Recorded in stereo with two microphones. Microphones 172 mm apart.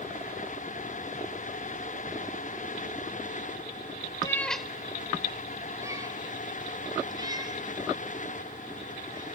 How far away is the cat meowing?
About 0.6 m.